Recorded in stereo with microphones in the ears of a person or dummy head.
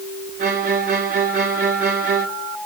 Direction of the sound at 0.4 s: 35° right (ahead or behind).